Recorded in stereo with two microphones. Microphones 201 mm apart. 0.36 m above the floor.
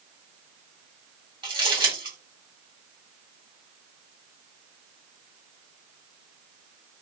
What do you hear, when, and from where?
1.4 s crumpling: 25° right (ahead or behind), 2.5 m